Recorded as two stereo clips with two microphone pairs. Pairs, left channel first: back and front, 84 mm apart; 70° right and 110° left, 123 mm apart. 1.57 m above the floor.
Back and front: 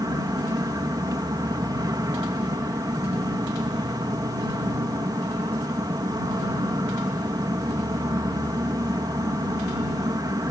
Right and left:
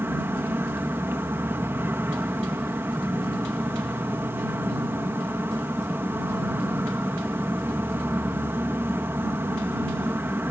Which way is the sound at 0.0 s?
40° left.